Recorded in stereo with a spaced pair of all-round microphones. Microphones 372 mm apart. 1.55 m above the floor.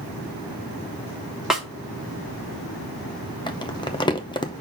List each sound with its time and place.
1.5 s a snare drum: centre (ahead or behind), 1.1 m
3.5 s crumpling: 10° left (ahead or behind), 0.6 m